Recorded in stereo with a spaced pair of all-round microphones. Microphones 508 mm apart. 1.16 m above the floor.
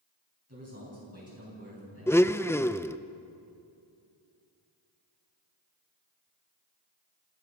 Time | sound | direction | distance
0.5 | a man speaking | 30° right (ahead or behind) | 9 m
2.1 | a blender | 5° left (ahead or behind) | 0.5 m